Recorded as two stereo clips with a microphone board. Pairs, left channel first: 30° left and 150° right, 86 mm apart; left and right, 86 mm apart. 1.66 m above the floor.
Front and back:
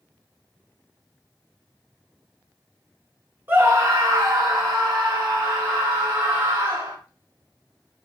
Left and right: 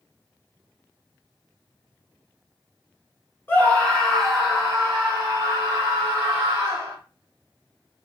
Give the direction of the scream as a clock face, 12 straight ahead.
7 o'clock.